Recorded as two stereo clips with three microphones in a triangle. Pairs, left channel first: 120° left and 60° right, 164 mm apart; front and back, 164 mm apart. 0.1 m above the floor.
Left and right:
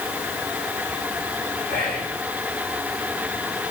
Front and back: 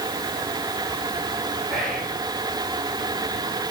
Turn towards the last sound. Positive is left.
turn(degrees=85)